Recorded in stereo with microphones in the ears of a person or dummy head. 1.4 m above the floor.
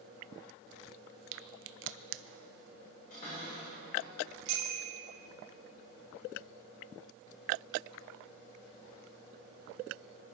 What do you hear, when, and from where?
1.3 s a crack: 70° right (ahead or behind), 0.6 m
3.1 s a cupboard door: 40° left (ahead or behind), 7 m
4.5 s a bicycle bell: 65° right (ahead or behind), 3.5 m